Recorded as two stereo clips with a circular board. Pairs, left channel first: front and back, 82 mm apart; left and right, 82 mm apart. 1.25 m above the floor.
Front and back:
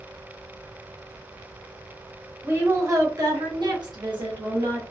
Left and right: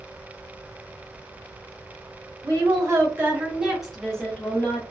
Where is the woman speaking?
120° right, 1.1 m; by 4.8 s 155° left, 1.3 m.